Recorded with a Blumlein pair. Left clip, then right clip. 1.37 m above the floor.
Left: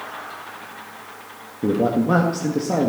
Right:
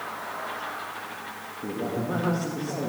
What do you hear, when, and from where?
1.6 s a man speaking: 60° left, 2 m